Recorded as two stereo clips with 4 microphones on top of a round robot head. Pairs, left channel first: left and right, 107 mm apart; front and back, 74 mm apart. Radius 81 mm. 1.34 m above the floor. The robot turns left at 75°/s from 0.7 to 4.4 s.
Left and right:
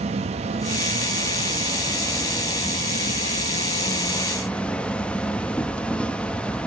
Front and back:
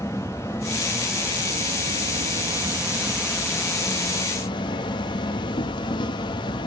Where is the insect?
70° right, 1.1 m; by 6.7 s 10° left, 1.1 m.